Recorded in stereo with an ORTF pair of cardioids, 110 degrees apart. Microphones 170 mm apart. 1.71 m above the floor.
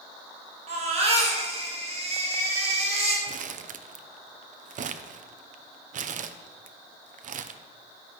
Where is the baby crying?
40° right, 7 m.